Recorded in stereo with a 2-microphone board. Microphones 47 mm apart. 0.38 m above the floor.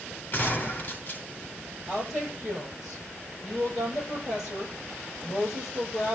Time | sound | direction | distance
0.3 | a gunshot | 35° left (ahead or behind) | 3 m
1.9 | a woman speaking | 20° right (ahead or behind) | 9 m